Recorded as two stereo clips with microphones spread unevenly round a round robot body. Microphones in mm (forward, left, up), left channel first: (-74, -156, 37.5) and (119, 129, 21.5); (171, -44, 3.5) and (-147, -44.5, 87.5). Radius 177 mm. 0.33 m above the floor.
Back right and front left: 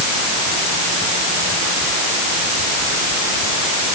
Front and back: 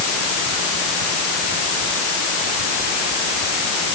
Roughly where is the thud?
No thud in this recording.